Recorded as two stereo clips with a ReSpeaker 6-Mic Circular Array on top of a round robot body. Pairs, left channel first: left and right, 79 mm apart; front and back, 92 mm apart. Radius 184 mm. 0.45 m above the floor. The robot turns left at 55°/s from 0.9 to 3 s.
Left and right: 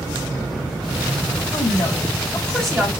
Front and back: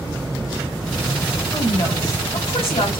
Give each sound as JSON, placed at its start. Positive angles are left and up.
{"t": 1.5, "sound": "a woman speaking", "azimuth_deg": 65, "distance_m": 3.0}